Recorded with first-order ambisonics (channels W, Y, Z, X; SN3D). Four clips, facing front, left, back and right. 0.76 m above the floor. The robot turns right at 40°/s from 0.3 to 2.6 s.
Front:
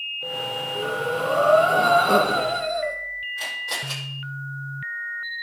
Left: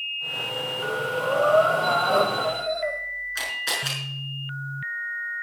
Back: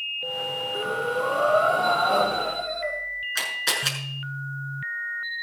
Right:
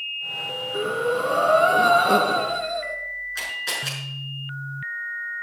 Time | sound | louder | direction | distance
0.7 | breathing | right 6 dB, front 1 dB | 100° right | 5.5 m
3.4 | a camera shutter | left 1 dB, back 4 dB | 170° left | 6 m